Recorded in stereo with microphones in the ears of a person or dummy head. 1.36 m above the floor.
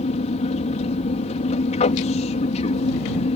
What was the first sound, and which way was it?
An aircraft, 35° left (ahead or behind).